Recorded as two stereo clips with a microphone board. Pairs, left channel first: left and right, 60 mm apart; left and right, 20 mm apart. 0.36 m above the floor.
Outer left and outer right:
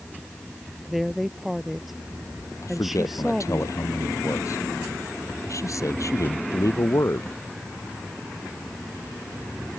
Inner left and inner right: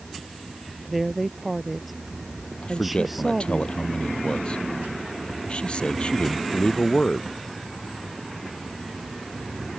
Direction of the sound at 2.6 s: 60° left (ahead or behind).